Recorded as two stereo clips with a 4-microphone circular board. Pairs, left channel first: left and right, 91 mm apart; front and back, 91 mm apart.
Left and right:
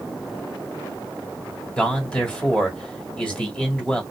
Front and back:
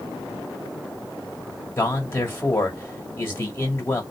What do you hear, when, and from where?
1.8 s a man speaking: 25° left, 1.2 m